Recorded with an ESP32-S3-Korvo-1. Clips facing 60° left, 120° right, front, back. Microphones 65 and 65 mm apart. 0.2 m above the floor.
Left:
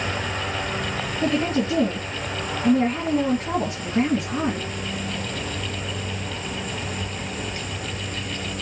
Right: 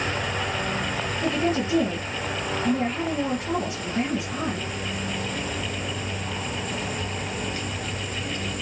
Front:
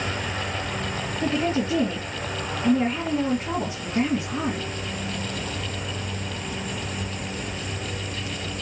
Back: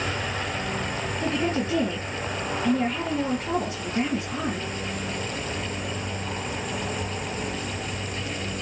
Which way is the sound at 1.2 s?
60° left.